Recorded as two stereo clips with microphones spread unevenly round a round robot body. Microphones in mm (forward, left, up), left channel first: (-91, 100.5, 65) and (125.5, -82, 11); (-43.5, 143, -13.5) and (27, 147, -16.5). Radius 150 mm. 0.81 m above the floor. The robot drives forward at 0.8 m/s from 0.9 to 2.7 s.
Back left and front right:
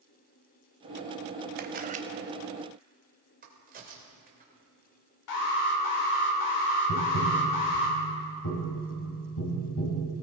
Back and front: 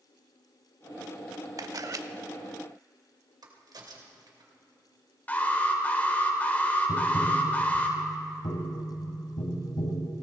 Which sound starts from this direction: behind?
Tapping, at 6.9 s.